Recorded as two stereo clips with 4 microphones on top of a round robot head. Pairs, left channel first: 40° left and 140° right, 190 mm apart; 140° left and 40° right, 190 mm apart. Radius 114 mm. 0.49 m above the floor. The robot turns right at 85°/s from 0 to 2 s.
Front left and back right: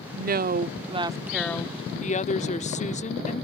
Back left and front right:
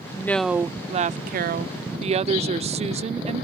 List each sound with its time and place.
0.1 s a woman speaking: 155° right; by 3.5 s 5° left